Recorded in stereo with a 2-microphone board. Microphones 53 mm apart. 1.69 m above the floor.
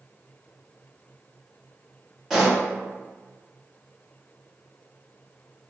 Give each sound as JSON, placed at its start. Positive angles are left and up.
{"t": 2.3, "sound": "a pop", "side_deg": 0, "distance_m": 1.4}